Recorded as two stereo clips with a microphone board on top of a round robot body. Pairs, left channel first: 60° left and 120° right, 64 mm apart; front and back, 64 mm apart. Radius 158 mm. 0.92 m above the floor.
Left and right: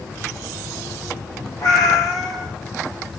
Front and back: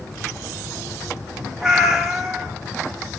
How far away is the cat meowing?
About 0.7 m.